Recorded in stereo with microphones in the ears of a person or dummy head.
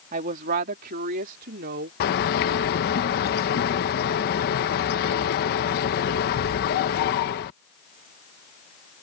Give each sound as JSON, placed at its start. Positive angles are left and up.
{"t": 0.1, "sound": "a woman speaking", "side_deg": -45}
{"t": 2.0, "sound": "a bird", "side_deg": 50}